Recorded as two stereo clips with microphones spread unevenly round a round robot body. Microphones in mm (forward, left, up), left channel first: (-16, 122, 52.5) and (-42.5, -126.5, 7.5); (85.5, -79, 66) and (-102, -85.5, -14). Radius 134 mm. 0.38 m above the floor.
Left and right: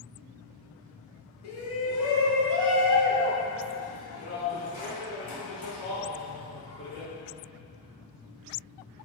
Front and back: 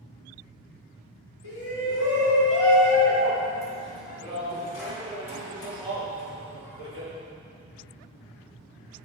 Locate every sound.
1.4 s a shout: 55° left, 2 m; by 7.1 s 15° left, 5.5 m